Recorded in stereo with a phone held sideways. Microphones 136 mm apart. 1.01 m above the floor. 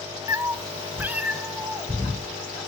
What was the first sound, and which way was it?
A cat meowing, 20° right (ahead or behind).